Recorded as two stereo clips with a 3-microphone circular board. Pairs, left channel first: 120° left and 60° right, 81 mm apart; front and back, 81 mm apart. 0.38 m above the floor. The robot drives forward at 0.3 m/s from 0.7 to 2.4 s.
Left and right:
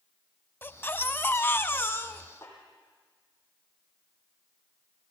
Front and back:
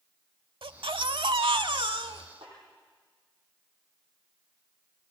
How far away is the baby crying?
About 0.6 m.